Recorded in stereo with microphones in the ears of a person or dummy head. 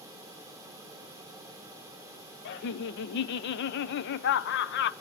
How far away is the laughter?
About 0.8 m.